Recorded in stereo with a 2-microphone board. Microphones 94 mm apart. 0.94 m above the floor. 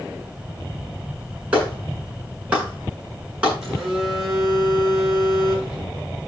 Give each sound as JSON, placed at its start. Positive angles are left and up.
{"t": 1.5, "sound": "a clap", "side_deg": -15, "distance_m": 9.0}
{"t": 3.6, "sound": "a phone buzzing", "side_deg": -5, "distance_m": 9.0}